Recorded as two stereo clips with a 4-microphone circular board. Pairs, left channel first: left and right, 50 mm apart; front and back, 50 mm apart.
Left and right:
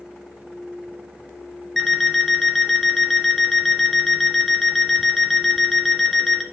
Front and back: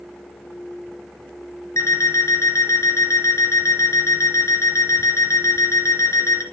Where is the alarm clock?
5° left, 2 m.